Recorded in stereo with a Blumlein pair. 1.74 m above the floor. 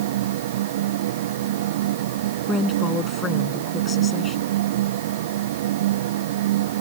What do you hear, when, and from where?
0.0 s a fan: 55° right
2.5 s a woman speaking: 20° left